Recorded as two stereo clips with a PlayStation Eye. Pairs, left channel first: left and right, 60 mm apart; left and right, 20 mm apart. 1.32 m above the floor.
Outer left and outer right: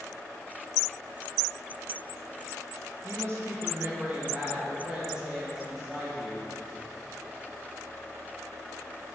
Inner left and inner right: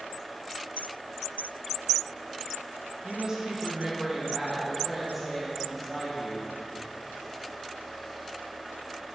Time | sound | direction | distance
3.0 | a woman speaking | 50° right (ahead or behind) | 1.4 m